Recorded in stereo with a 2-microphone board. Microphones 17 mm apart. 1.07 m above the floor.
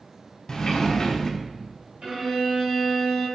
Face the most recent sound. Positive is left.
turn(degrees=-65)  # may be behind; listen again after turning